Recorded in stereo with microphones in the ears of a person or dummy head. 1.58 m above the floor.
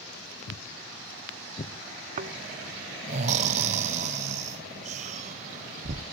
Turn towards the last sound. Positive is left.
turn(degrees=-40)  # may be behind; listen again after turning